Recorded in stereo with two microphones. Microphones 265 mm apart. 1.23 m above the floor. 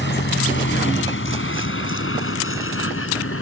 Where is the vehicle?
45° left (ahead or behind); by 3.4 s 60° left (ahead or behind).